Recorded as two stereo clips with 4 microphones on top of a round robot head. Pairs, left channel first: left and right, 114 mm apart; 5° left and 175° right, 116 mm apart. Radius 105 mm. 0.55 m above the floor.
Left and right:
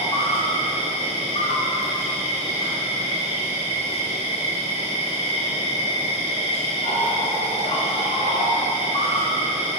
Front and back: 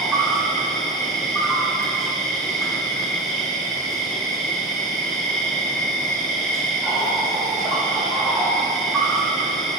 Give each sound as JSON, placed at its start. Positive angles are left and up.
{"t": 0.0, "sound": "an insect", "azimuth_deg": 90, "distance_m": 1.6}